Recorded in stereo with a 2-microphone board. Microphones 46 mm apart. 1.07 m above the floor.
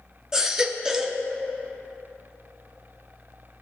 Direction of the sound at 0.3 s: 10° right (ahead or behind).